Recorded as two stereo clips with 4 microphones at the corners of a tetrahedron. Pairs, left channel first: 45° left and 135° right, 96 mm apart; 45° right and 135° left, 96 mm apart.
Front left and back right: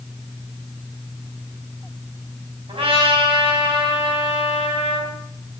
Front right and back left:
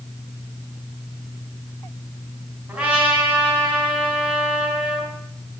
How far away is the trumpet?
About 4.5 m.